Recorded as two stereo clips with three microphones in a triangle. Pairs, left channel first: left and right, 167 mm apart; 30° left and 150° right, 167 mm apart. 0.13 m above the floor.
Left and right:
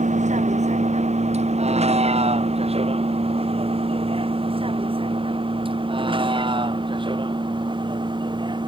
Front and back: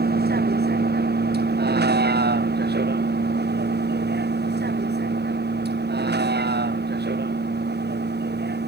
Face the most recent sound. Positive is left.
turn(degrees=-150)